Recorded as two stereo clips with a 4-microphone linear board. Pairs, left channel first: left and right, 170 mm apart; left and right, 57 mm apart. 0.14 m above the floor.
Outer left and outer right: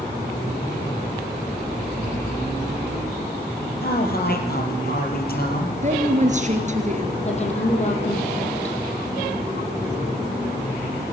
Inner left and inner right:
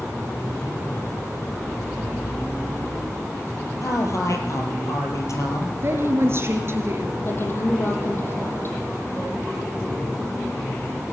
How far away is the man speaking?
About 4.5 m.